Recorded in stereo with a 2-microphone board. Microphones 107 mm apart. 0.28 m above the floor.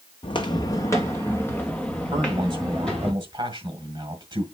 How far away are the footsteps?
About 1.0 m.